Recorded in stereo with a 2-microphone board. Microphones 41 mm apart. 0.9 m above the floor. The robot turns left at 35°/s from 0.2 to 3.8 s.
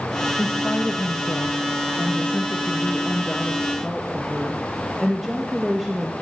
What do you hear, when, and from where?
0.4 s a woman speaking: 115° left, 1.0 m; by 6.1 s 5° right, 1.0 m